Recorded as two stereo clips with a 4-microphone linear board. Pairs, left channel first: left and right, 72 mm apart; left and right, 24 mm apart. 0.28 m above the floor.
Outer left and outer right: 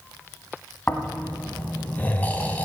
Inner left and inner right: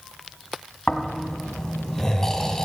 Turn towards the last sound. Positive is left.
turn(degrees=20)  # may be behind; listen again after turning